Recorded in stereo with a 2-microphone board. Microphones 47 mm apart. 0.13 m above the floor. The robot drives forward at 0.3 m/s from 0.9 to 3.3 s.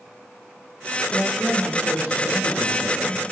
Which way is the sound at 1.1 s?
20° right (ahead or behind).